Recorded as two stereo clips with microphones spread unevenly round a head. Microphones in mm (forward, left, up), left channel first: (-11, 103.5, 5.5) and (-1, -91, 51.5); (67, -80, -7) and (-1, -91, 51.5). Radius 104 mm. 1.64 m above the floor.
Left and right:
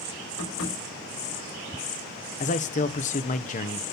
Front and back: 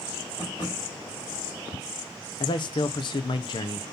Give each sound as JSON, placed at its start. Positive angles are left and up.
{"t": 0.4, "sound": "tapping", "azimuth_deg": 75, "distance_m": 6.0}
{"t": 2.4, "sound": "a man speaking", "azimuth_deg": 35, "distance_m": 1.0}